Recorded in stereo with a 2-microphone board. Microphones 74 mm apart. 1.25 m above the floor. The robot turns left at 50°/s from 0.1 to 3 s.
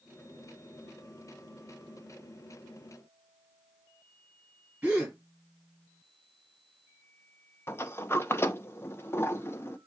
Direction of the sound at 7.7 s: 35° left (ahead or behind).